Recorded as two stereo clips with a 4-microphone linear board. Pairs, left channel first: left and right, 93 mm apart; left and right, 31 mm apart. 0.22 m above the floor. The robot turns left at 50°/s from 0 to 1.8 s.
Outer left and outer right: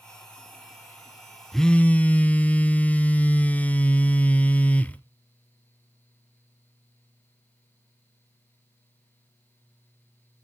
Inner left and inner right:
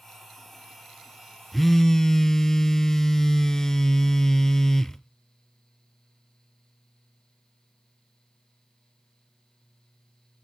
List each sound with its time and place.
1.5 s a phone buzzing: centre (ahead or behind), 0.7 m; by 5.0 s 15° left (ahead or behind), 0.7 m